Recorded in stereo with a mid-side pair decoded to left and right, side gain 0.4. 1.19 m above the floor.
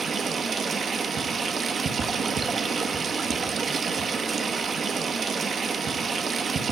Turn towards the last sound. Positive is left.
turn(degrees=-50)